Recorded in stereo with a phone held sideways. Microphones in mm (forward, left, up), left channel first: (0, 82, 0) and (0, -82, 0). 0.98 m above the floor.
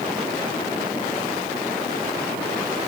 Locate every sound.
Only background noise.